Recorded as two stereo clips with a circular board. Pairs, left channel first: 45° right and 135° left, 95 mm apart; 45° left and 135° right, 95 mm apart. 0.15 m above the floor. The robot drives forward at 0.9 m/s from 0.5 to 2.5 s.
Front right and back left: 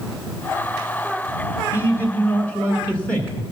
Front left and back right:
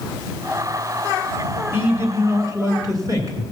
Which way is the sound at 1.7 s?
85° right.